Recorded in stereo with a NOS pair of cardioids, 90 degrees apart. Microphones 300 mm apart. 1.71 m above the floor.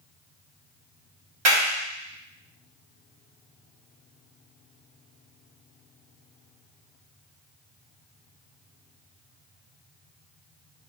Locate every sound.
1.4 s a clap: 60° right, 1.5 m